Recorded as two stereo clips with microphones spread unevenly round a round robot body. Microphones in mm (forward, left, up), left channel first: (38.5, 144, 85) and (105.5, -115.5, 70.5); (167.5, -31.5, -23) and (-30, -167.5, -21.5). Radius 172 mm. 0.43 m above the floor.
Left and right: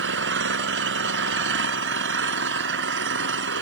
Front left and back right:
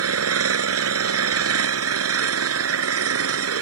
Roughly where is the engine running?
Behind right.